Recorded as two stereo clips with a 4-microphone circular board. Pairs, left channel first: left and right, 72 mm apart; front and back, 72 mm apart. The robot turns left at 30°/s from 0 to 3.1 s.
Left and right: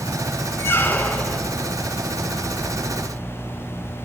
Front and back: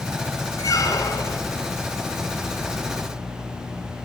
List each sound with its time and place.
0.6 s a squeak: 40° left, 1.2 m; by 1.4 s 15° left, 1.2 m